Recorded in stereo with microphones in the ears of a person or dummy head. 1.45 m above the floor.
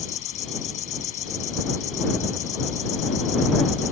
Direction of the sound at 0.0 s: 40° left (ahead or behind).